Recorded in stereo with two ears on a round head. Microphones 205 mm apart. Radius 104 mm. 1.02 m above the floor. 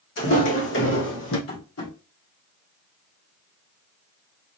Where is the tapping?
70° left (ahead or behind), 2.5 m.